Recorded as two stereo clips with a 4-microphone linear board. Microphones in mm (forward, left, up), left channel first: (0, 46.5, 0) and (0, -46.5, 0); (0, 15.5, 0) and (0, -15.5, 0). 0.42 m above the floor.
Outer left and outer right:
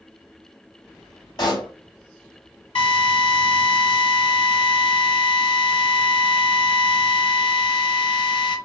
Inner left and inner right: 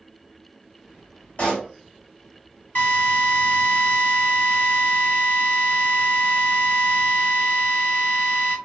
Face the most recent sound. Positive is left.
turn(degrees=70)  # may be behind; listen again after turning